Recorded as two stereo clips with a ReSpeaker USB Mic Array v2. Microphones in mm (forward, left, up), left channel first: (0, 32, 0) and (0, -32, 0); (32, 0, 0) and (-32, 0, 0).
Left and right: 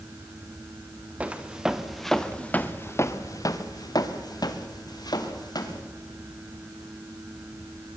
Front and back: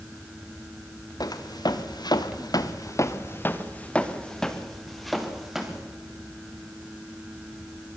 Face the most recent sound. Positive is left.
turn(degrees=100)